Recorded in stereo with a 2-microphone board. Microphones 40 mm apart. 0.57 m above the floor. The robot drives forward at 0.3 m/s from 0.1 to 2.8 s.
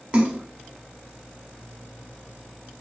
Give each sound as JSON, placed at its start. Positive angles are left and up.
{"t": 0.1, "sound": "a splash", "side_deg": -25, "distance_m": 1.0}